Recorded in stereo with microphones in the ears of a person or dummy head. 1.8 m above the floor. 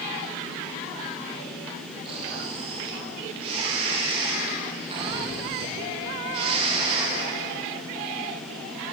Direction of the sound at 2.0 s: 30° right (ahead or behind).